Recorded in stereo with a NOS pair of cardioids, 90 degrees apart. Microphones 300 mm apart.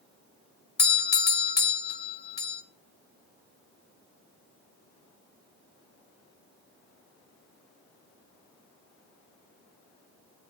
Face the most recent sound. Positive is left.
turn(degrees=35)